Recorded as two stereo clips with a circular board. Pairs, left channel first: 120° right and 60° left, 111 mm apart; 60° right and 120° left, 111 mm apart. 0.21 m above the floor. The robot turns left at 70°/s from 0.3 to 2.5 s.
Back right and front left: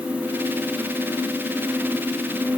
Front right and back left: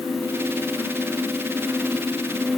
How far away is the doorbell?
I don't hear a doorbell.